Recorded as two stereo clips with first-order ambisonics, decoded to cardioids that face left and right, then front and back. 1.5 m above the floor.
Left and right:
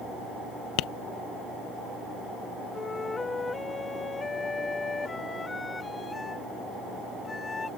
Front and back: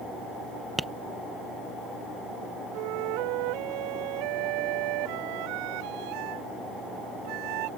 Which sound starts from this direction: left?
Tapping, at 0.8 s.